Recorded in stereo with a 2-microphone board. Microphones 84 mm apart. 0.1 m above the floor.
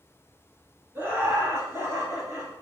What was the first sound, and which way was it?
Laughter, 25° right (ahead or behind).